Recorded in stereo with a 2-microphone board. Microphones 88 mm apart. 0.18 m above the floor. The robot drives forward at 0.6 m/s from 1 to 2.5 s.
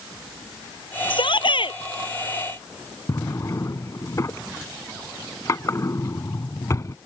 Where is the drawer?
40° left (ahead or behind).